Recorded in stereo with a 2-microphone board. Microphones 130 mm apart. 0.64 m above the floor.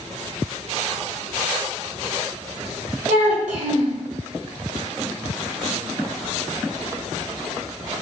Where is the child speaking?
65° right (ahead or behind), 1.4 m.